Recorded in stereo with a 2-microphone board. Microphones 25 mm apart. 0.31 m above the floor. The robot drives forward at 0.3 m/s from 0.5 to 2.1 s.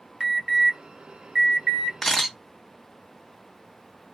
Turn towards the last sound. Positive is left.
turn(degrees=15)  # may be behind; listen again after turning